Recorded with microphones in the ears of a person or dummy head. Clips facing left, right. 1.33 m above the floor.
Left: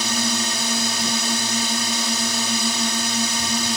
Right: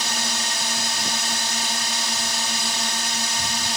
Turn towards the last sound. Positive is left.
turn(degrees=65)  # may be behind; listen again after turning